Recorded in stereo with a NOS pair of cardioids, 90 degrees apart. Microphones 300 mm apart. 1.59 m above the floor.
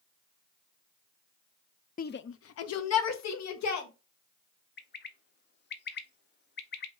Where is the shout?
30° left, 0.5 m; by 3.9 s 65° left, 1.8 m.